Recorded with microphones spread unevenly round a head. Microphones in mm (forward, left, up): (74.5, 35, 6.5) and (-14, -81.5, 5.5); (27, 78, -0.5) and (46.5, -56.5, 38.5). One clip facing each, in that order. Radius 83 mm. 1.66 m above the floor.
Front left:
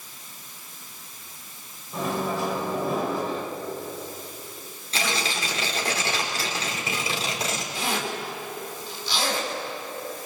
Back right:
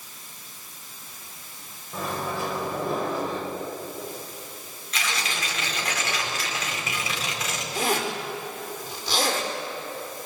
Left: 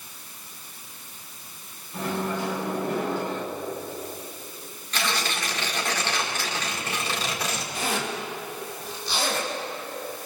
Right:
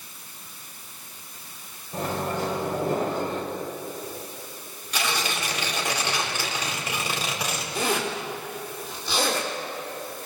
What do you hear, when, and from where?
1.9 s a microwave: 35° right, 6 m
4.9 s tearing paper: 5° right, 4.5 m
7.8 s a zipper: 85° right, 5 m